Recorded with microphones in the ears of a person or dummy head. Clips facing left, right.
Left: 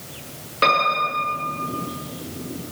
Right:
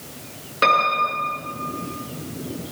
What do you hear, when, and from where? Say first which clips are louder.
0.6 s a piano: even; centre (ahead or behind), 7.5 m